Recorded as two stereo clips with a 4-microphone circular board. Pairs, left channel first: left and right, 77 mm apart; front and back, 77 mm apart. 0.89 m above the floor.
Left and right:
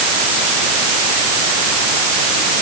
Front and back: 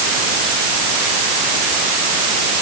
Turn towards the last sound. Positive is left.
No sound to turn to.